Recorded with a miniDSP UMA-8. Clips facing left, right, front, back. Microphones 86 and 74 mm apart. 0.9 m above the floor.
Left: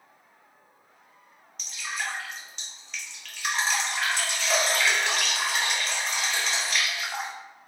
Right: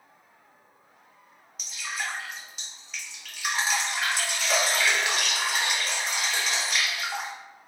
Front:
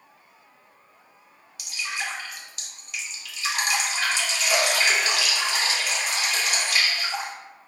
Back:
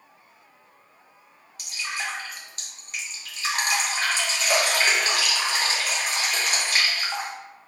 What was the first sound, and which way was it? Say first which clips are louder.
Dripping: even, even; 170° right.